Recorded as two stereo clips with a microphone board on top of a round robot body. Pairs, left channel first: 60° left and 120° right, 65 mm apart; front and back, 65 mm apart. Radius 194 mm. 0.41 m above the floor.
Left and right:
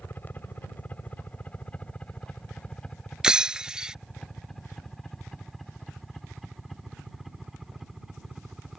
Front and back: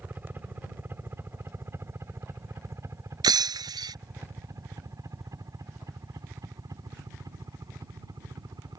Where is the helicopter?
120° left; by 8.8 s 155° left.